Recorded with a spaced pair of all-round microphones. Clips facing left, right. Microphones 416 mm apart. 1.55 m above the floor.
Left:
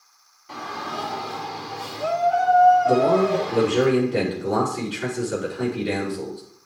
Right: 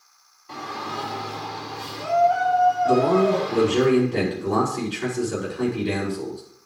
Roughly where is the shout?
Centre.